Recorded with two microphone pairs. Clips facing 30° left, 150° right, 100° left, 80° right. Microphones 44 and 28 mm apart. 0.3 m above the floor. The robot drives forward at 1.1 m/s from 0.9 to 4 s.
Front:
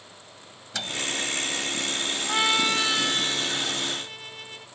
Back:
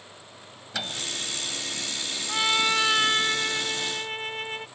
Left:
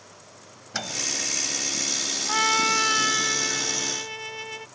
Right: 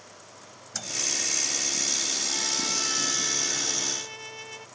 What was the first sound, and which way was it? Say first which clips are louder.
A microwave: front 1 dB, left 3 dB; 130° left.